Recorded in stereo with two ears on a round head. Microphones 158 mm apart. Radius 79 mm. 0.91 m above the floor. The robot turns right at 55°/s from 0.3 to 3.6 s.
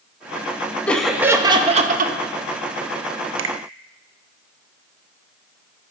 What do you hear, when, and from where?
0.9 s laughter: 170° left, 0.6 m; by 2.1 s 120° right, 0.6 m
3.4 s a finger snap: 80° right, 0.5 m; by 3.5 s 75° right (ahead or behind), 0.5 m